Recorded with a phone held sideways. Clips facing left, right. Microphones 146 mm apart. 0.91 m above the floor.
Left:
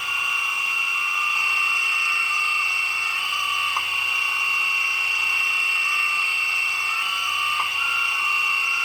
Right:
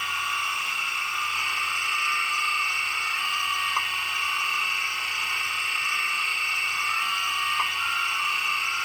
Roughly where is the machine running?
Centre.